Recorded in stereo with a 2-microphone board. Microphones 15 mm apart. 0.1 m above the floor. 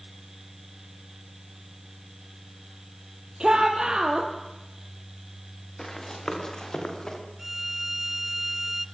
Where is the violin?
25° right (ahead or behind), 1.3 m.